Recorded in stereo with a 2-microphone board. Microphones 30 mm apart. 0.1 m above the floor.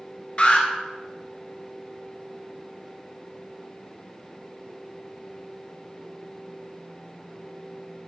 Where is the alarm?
30° left (ahead or behind), 1.1 m.